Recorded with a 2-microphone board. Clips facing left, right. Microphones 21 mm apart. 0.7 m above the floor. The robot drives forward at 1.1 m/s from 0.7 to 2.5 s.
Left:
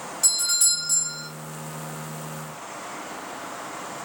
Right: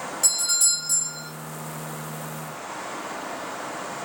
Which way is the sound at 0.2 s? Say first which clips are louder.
Left 1 dB; centre (ahead or behind).